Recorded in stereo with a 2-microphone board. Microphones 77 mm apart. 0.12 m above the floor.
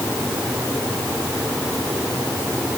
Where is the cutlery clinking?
No cutlery clinking in this recording.